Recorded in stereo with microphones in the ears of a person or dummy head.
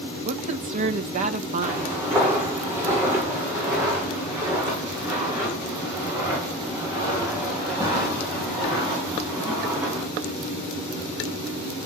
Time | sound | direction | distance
0.2 | a woman speaking | 40° right (ahead or behind) | 1.7 m
1.6 | footsteps | 10° right (ahead or behind) | 9 m